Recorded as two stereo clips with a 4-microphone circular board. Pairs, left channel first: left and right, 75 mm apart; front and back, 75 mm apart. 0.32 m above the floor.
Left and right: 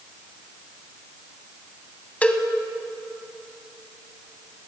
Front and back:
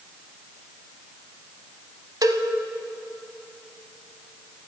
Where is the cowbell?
160° left, 0.9 m.